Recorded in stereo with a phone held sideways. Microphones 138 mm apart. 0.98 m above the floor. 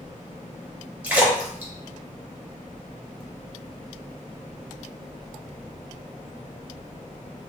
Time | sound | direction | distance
1.0 | a splash | 10° right (ahead or behind) | 0.9 m